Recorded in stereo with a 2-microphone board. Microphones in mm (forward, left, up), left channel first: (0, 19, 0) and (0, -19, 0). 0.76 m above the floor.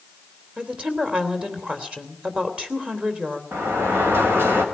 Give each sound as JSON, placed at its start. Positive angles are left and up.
{"t": 0.6, "sound": "a woman speaking", "side_deg": -30, "distance_m": 3.0}
{"t": 3.5, "sound": "a sliding door", "side_deg": -80, "distance_m": 4.5}